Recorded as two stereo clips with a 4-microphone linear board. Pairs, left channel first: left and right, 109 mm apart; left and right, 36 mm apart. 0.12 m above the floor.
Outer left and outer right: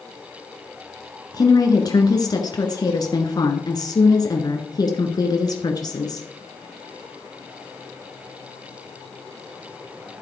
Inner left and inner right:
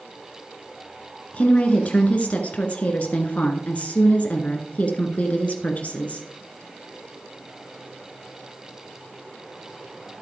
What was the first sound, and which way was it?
A woman speaking, 40° left (ahead or behind).